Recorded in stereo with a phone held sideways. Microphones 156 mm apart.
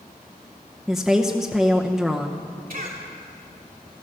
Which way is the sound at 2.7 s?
70° right (ahead or behind).